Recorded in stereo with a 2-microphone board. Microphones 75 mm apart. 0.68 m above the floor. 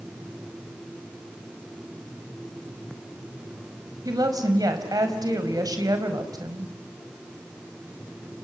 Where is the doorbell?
I don't hear a doorbell.